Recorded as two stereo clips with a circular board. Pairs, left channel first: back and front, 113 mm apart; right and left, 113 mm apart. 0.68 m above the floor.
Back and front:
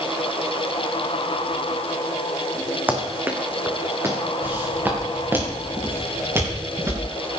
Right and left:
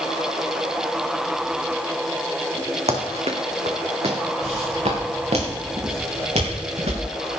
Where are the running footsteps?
75° left, 2.5 m; by 4.2 s 65° left, 3.5 m.